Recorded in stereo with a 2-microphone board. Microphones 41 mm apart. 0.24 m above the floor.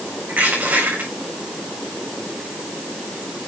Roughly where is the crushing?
Right.